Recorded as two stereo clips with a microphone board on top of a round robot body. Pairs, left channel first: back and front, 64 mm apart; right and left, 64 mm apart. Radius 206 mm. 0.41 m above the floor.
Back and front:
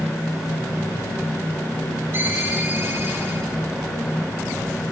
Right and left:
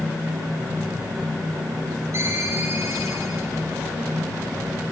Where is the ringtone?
45° left, 8.5 m.